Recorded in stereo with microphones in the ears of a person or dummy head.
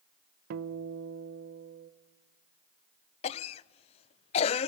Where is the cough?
40° left (ahead or behind), 0.6 m.